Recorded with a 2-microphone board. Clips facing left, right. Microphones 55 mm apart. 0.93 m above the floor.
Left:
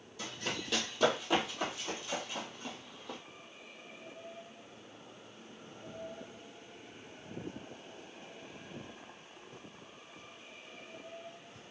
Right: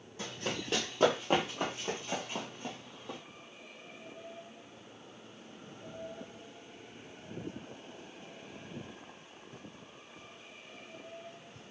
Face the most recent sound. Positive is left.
turn(degrees=-25)  # may be behind; listen again after turning